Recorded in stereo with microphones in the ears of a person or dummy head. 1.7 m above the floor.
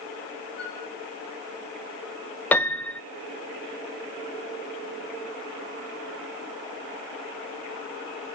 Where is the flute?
25° right (ahead or behind), 9 m.